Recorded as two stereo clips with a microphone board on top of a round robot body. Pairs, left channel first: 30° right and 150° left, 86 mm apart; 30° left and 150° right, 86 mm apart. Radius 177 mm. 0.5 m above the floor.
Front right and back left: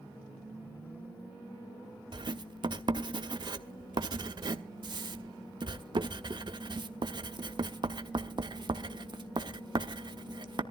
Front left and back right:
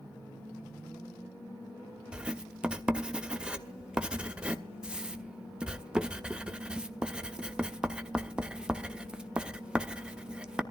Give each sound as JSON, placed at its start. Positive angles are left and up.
{"t": 2.1, "sound": "writing", "azimuth_deg": 130, "distance_m": 1.2}